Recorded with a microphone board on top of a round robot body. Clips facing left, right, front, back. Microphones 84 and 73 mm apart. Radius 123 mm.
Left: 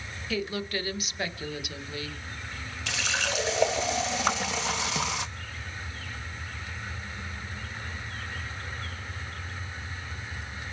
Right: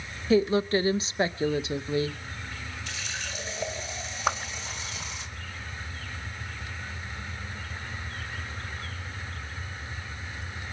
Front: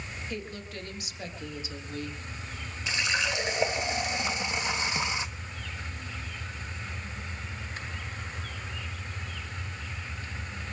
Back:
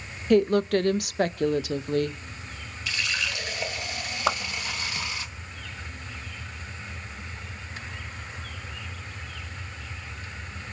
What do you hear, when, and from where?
0.3 s a woman speaking: 150° right, 1.0 m
2.9 s a running tap: 70° left, 1.0 m
4.3 s a whoosh: 175° right, 1.4 m